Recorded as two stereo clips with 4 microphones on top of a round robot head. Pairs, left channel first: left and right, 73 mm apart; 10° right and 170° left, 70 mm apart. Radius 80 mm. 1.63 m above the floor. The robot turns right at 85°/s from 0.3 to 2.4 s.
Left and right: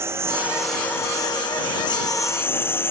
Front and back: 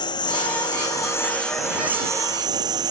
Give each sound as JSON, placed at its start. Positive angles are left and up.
{"t": 0.0, "sound": "a lawn mower", "azimuth_deg": -30}